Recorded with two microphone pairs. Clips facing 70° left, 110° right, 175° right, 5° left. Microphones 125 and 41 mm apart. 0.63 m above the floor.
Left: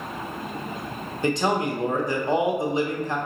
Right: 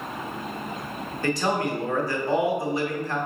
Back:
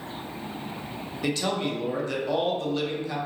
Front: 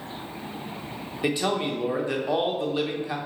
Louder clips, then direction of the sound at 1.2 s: Left 2 dB, front 2 dB; 55° left.